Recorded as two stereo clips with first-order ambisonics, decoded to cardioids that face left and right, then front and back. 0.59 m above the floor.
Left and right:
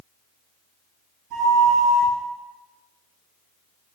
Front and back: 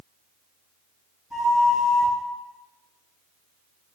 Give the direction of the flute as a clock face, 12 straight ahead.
3 o'clock.